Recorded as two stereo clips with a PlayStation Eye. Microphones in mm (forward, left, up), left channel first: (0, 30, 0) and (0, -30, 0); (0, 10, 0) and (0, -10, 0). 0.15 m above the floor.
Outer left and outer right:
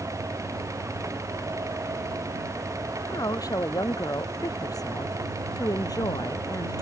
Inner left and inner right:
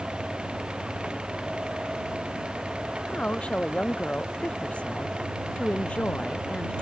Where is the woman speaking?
70° left (ahead or behind); by 6.8 s 80° left.